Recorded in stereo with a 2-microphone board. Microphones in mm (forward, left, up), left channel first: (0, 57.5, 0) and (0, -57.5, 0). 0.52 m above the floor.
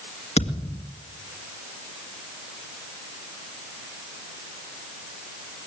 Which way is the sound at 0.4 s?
85° left.